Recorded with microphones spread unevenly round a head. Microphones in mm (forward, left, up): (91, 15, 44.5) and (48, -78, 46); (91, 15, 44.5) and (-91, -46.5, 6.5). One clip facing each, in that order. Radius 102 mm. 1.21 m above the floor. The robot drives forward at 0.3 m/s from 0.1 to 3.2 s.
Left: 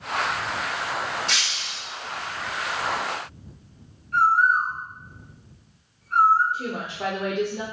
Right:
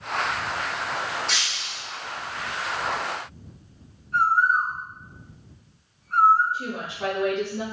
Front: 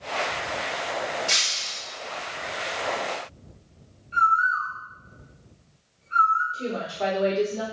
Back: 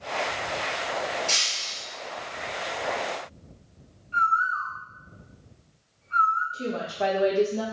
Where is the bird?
100° left, 1.4 m.